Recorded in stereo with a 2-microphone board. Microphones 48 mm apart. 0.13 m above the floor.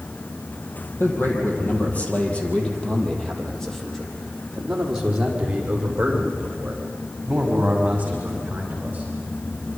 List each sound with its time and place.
1.0 s a man speaking: 50° left (ahead or behind), 4.5 m; by 9.0 s 35° right (ahead or behind), 10.5 m